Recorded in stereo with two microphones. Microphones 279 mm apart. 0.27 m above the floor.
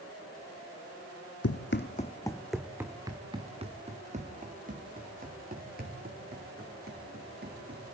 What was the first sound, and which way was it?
Running footsteps, 60° left (ahead or behind).